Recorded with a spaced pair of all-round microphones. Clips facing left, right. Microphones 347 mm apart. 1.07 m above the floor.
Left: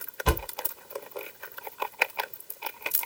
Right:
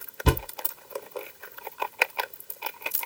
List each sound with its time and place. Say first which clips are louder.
0.2 s a thud: right 3 dB; 50° right (ahead or behind), 1.1 m